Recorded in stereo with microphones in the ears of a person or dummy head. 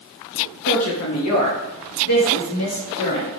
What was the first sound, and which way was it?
A woman speaking, 70° left (ahead or behind).